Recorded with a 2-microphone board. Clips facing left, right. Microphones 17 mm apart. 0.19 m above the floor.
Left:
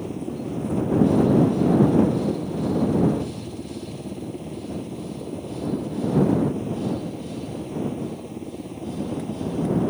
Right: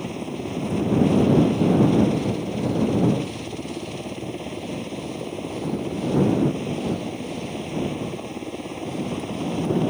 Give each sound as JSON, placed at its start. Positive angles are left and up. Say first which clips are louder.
{"t": 0.0, "sound": "a helicopter", "louder": "even", "side_deg": -45}